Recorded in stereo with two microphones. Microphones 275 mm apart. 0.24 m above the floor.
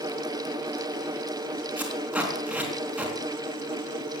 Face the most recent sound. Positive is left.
turn(degrees=-5)  # may be behind; listen again after turning